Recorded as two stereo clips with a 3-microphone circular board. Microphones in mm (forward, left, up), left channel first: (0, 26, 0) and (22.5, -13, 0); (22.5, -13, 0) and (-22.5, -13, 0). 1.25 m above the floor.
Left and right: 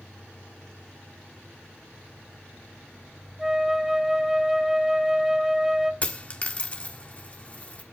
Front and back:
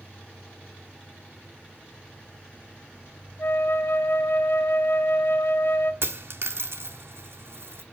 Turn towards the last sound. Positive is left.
turn(degrees=180)